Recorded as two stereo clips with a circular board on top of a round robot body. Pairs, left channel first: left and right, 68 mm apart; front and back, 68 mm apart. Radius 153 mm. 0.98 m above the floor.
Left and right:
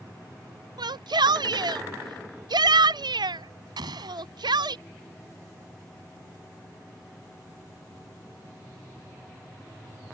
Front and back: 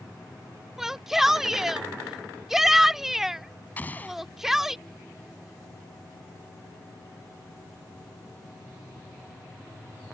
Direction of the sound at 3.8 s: 70° right.